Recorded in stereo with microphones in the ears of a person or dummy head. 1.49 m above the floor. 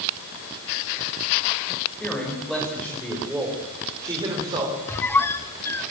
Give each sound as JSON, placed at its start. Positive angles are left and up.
{"t": 2.0, "sound": "a man speaking", "side_deg": 5, "distance_m": 5.5}
{"t": 4.9, "sound": "a squeak", "side_deg": 10, "distance_m": 1.3}